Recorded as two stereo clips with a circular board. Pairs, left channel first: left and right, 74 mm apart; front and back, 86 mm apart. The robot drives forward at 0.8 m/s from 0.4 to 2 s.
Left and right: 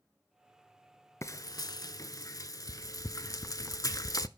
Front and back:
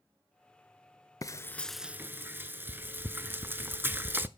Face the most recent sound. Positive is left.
turn(degrees=115)